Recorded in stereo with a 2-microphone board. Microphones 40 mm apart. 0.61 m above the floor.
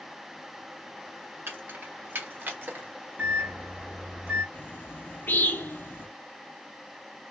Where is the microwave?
60° right (ahead or behind), 1.3 m.